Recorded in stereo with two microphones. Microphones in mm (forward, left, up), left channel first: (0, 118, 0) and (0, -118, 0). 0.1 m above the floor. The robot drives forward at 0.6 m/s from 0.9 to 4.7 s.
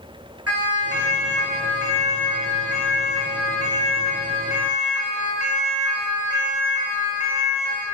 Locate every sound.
0.5 s a siren: 80° right, 8.5 m; by 7.8 s 70° right (ahead or behind), 10.5 m